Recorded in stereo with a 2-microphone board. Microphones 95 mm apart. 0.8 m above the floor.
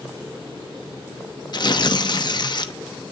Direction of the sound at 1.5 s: 50° left (ahead or behind).